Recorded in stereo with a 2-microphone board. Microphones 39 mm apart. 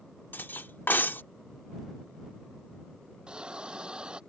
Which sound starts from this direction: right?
A hiss, at 3.3 s.